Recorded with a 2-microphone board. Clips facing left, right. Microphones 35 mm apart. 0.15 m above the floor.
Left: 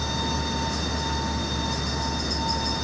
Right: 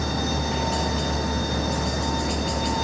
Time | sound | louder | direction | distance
0.0 | a helicopter | right 2 dB | 60° right (ahead or behind) | ?